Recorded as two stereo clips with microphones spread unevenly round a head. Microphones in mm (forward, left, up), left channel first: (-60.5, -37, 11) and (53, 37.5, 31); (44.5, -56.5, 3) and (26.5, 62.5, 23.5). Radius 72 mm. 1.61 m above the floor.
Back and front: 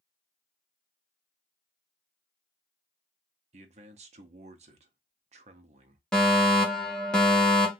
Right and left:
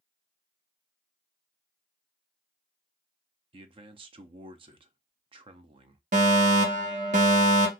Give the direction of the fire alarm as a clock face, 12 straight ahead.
8 o'clock.